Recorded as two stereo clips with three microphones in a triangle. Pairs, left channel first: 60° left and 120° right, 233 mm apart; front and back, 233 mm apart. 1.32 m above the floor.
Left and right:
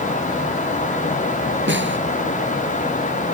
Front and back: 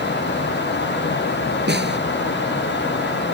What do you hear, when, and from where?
1.7 s a snare drum: 145° right